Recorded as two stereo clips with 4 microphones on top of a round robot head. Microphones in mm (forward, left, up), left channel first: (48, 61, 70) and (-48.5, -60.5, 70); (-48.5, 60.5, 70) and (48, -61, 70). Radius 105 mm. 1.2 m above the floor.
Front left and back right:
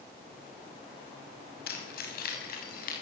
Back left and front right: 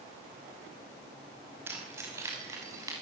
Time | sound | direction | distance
1.7 | keys jangling | 25° left | 5.5 m